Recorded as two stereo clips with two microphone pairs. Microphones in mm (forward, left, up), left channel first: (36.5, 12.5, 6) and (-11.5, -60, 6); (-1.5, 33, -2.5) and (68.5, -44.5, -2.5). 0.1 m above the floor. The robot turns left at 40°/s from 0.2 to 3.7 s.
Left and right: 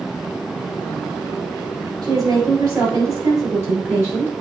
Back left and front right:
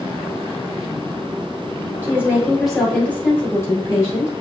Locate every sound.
2.0 s a woman speaking: 110° right, 2.5 m; by 4.3 s 175° right, 2.5 m